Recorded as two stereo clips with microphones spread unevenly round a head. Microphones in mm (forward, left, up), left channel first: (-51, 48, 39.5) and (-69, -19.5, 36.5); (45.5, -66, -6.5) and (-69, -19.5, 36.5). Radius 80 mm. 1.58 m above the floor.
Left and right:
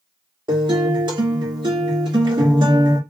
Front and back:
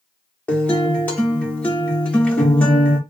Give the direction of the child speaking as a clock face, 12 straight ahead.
I don't hear a child speaking.